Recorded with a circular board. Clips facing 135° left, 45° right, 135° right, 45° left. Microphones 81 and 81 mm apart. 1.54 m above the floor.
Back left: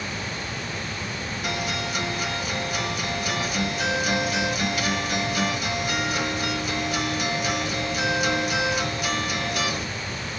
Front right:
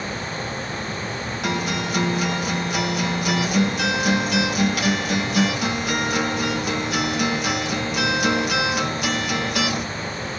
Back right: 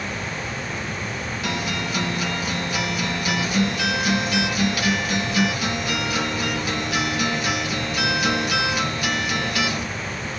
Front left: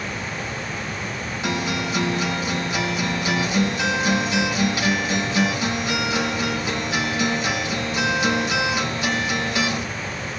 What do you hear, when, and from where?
1.4 s a guitar: 25° right, 2 m